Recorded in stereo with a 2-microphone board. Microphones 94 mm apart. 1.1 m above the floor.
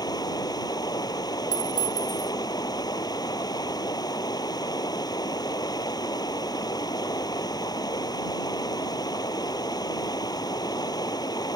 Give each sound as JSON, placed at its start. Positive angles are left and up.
{"t": 0.0, "sound": "running water", "side_deg": 45}
{"t": 1.5, "sound": "a clink", "side_deg": -60}